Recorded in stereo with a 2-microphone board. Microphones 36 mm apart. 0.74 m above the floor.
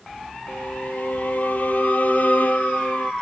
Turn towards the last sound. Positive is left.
turn(degrees=50)  # may be behind; listen again after turning